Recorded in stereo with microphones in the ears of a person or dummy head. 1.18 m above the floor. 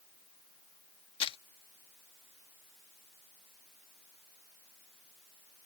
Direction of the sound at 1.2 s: 30° left (ahead or behind).